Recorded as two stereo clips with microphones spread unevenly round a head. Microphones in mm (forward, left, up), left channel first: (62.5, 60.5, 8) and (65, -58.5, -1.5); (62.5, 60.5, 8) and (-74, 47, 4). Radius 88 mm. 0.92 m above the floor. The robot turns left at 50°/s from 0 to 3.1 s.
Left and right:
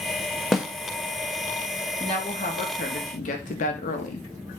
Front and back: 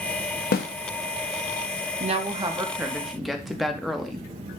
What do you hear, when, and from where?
0.5 s a snare drum: straight ahead, 0.7 m; by 0.6 s 5° right, 0.7 m
2.0 s a woman speaking: 155° left, 0.9 m; by 4.3 s 100° left, 0.9 m